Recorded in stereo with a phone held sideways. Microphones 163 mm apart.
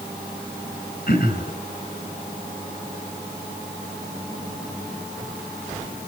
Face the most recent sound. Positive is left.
turn(degrees=60)  # may be behind; listen again after turning